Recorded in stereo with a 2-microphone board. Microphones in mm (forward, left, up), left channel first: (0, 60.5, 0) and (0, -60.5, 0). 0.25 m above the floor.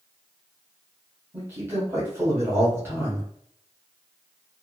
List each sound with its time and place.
1.3 s a man speaking: 20° right (ahead or behind), 1.2 m